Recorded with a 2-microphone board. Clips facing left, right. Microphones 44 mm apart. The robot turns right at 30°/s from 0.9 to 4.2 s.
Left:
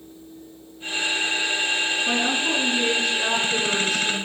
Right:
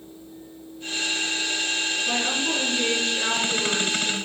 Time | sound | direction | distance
2.1 | a woman speaking | 145° left | 6 m